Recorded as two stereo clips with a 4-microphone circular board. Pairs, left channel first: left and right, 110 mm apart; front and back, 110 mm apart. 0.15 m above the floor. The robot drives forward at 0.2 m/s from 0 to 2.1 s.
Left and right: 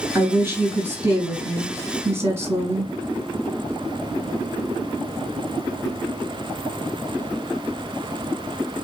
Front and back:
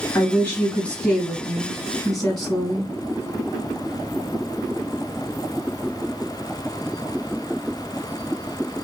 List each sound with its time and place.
0.1 s a woman speaking: 55° right, 1.5 m; by 2.9 s 90° right, 1.5 m